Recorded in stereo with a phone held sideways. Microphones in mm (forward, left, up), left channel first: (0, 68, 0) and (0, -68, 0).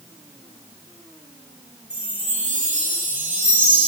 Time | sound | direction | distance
1.9 | a chime | 65° right (ahead or behind) | 2.5 m